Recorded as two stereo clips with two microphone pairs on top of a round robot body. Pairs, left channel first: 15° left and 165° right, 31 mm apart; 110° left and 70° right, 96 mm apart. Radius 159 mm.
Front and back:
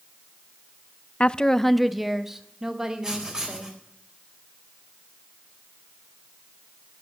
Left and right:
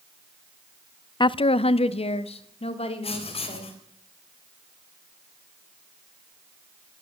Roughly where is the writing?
Behind left.